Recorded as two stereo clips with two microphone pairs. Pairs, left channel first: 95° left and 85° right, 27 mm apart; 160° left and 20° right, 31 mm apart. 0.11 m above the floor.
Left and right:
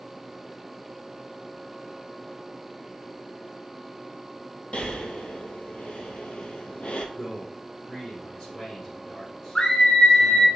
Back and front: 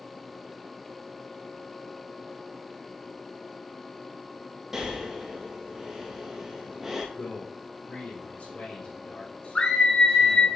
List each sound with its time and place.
4.7 s breathing: 60° left, 1.1 m
7.2 s a man speaking: 170° left, 2.5 m
9.6 s a scream: 145° left, 1.8 m